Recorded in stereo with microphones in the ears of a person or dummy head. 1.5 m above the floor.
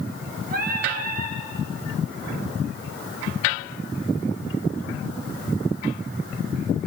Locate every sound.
0.5 s singing: 50° right (ahead or behind), 4.5 m